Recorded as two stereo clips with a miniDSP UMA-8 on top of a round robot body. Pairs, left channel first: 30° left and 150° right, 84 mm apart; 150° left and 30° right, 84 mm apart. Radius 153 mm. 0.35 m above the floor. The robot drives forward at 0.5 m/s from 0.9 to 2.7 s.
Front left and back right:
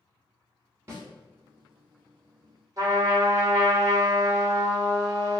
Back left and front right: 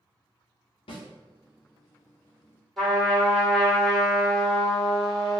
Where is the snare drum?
150° left, 1.1 m.